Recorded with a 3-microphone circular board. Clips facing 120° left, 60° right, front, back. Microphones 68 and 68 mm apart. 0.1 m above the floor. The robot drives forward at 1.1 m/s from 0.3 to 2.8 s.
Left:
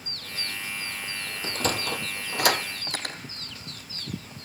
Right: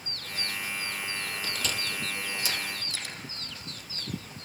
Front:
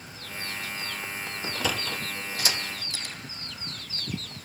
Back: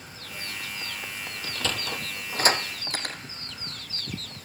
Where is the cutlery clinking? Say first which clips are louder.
Left 4 dB, back 4 dB; 150° left, 2 m.